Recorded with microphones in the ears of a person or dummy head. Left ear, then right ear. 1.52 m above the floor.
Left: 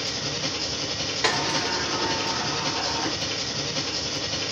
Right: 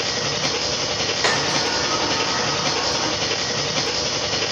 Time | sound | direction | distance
0.0 | an engine running | 25° right (ahead or behind) | 0.9 m
1.2 | a sliding door | 10° left (ahead or behind) | 2 m